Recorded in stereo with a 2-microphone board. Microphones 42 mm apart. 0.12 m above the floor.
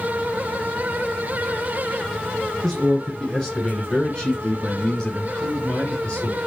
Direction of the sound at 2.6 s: Centre (ahead or behind).